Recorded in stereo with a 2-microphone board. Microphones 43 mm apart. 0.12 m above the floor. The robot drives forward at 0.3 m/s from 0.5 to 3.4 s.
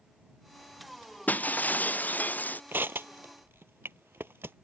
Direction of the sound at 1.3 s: 40° left (ahead or behind).